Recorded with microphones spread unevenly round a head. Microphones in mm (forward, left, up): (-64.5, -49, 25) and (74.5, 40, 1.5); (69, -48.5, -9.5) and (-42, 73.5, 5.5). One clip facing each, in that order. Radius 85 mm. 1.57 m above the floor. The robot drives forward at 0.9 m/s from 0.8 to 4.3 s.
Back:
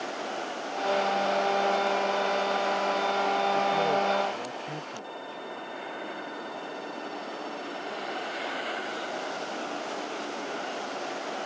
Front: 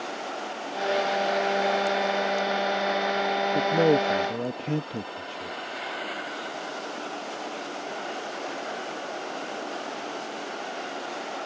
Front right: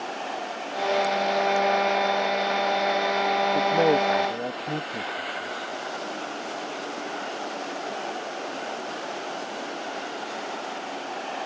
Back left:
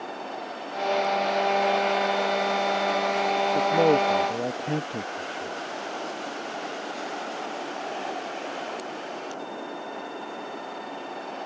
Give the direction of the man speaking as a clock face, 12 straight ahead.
10 o'clock.